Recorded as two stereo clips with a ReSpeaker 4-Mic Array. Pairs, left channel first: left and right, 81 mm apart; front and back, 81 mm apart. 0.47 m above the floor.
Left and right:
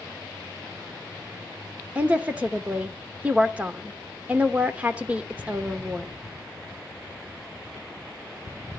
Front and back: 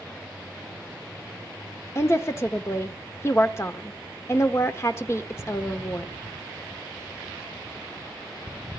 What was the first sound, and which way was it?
A woman speaking, 30° right.